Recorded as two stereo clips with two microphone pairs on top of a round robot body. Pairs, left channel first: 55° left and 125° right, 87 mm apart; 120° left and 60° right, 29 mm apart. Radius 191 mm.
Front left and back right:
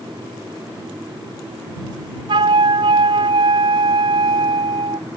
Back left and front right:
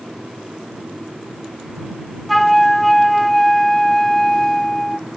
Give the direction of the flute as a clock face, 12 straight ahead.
5 o'clock.